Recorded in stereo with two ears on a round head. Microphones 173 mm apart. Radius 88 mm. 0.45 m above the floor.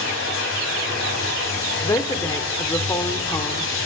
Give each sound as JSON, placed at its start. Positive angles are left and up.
{"t": 0.0, "sound": "running water", "side_deg": 70, "distance_m": 2.5}
{"t": 1.8, "sound": "a woman speaking", "side_deg": 15, "distance_m": 1.1}